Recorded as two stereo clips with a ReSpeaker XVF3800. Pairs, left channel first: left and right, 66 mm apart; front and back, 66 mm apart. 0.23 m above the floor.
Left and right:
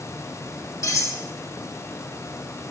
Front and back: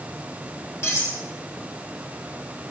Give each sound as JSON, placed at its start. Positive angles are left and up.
{"t": 0.8, "sound": "cutlery clinking", "azimuth_deg": 50, "distance_m": 6.0}